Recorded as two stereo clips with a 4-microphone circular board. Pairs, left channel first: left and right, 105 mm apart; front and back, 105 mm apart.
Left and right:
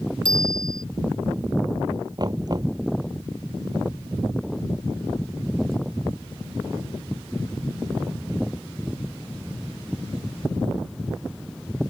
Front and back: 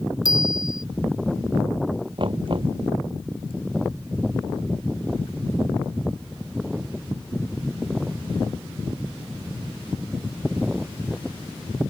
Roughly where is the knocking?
Behind right.